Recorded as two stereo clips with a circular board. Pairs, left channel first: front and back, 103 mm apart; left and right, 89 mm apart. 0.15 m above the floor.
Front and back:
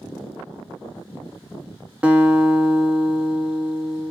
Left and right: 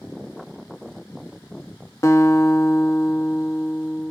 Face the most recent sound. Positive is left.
turn(degrees=110)